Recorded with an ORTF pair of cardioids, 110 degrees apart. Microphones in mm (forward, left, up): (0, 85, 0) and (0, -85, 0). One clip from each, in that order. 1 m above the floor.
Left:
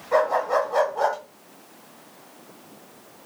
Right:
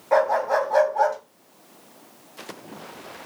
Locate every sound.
0.1 s a dog barking: 60° right, 2.5 m